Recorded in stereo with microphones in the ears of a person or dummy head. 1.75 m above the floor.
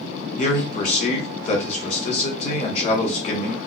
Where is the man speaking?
45° left (ahead or behind), 1.1 m.